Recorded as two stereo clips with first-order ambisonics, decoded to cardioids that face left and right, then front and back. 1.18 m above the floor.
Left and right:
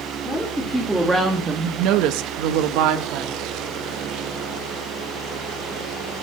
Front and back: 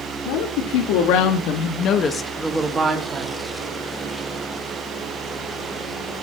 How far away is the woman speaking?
About 3 m.